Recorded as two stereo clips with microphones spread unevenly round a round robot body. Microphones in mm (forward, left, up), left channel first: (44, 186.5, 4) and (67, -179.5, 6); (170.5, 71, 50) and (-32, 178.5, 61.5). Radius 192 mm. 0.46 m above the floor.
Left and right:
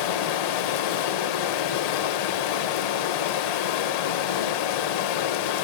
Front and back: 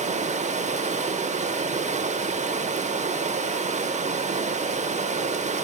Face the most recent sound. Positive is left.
turn(degrees=90)